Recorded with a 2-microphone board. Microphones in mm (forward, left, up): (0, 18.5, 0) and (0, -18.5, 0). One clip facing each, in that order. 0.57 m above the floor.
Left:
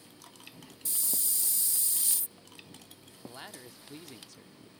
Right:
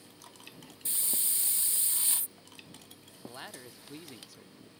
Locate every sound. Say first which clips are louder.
0.8 s a hiss: even; 35° right (ahead or behind)
3.2 s a man speaking: right 1 dB; 5° right (ahead or behind)